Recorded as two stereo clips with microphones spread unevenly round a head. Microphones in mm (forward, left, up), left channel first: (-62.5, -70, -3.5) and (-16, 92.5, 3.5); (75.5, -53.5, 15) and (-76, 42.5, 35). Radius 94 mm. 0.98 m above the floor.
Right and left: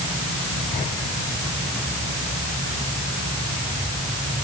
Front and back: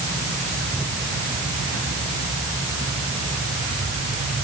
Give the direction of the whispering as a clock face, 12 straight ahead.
No whispering in this recording.